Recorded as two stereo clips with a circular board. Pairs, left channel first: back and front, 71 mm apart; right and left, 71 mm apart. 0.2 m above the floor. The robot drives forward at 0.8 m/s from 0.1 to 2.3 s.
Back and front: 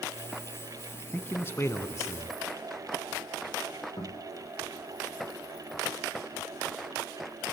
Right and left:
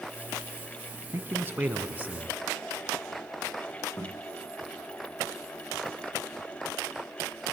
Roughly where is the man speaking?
Behind left.